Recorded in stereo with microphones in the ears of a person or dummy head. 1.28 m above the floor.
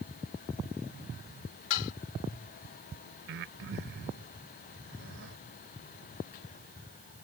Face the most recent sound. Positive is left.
turn(degrees=-60)  # may be behind; listen again after turning